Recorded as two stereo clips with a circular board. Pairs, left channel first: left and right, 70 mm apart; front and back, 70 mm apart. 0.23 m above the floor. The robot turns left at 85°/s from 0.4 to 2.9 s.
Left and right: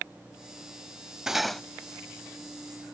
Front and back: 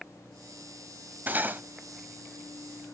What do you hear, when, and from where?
1.3 s cutlery clinking: 165° right, 0.5 m; by 1.6 s 165° left, 0.5 m